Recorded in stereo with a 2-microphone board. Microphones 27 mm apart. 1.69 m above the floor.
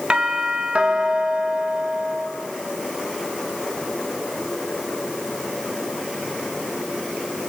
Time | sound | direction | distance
0.1 | a doorbell | 40° right (ahead or behind) | 2.5 m